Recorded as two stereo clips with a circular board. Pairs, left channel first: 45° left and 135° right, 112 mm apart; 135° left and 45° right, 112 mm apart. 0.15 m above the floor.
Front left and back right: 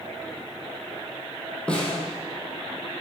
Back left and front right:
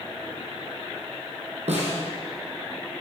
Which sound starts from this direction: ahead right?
A snare drum, at 1.7 s.